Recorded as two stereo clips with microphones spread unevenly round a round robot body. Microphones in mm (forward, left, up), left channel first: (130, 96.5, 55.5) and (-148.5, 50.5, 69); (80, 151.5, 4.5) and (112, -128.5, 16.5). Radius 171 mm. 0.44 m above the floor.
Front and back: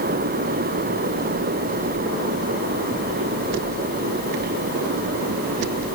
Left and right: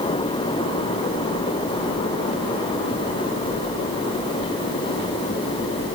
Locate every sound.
Only background noise.